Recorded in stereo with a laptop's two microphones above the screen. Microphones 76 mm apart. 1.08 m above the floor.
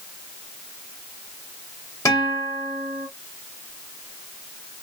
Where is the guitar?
45° left (ahead or behind), 4.5 m.